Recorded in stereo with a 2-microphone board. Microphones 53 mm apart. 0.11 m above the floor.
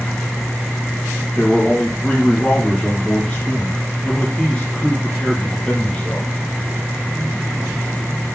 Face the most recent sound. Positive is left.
turn(degrees=20)  # may be behind; listen again after turning